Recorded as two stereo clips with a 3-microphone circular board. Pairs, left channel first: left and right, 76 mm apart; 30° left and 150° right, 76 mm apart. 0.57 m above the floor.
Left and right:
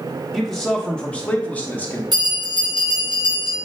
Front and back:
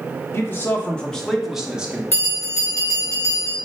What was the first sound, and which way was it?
A man speaking, 5° left.